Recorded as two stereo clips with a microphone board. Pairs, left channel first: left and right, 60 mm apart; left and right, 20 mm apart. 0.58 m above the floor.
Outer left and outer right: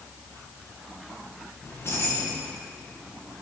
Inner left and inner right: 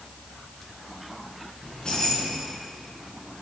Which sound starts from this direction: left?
Keys jangling, at 1.6 s.